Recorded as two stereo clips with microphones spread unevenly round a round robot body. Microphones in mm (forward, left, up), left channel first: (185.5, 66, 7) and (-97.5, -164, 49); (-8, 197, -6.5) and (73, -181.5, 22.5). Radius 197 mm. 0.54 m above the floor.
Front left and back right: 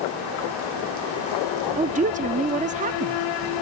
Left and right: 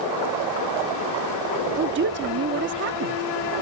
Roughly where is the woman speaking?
Right.